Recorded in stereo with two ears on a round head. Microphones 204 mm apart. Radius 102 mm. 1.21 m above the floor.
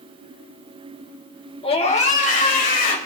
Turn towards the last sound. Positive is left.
turn(degrees=40)  # may be behind; listen again after turning